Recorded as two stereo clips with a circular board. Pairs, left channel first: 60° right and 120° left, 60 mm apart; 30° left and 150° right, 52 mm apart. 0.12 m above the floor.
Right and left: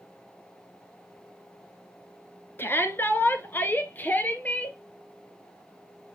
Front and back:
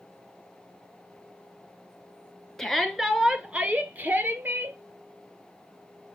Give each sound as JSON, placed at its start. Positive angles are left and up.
{"t": 2.6, "sound": "a shout", "azimuth_deg": -50, "distance_m": 1.3}